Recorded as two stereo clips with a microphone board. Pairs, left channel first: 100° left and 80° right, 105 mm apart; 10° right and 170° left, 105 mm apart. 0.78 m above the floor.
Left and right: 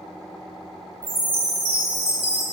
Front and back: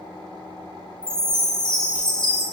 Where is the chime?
95° right, 1.7 m.